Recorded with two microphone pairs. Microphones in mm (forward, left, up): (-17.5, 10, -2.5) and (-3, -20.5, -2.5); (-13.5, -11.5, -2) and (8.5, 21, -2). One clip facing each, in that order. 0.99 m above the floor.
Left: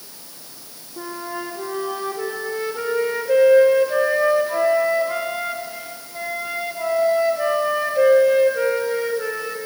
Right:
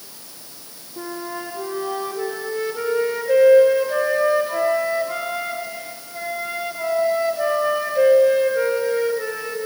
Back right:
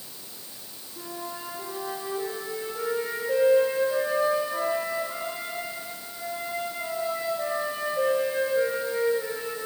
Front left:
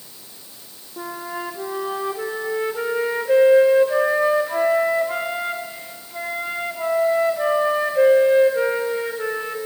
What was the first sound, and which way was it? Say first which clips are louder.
A flute: even, front left 7 dB; 30° left.